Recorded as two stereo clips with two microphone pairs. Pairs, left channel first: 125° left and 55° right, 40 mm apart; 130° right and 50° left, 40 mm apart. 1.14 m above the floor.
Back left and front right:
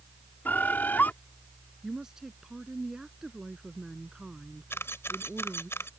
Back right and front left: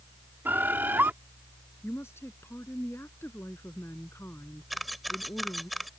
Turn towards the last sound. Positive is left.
turn(degrees=140)